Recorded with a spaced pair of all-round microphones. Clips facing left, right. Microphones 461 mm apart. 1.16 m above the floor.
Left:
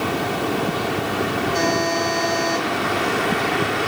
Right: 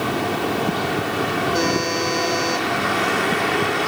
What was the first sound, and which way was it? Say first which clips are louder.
A buzzer: right 1 dB; 75° right (ahead or behind).